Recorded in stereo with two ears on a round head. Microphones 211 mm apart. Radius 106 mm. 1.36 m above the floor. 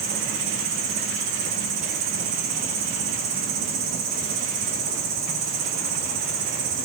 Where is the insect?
35° right (ahead or behind), 7 m.